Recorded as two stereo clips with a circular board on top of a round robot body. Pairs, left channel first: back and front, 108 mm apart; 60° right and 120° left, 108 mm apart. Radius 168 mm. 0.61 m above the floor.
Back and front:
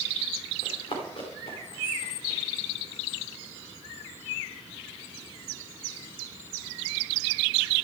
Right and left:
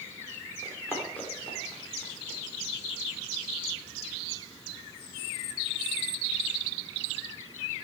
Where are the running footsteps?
135° right, 4 m; by 2.4 s 150° right, 5 m.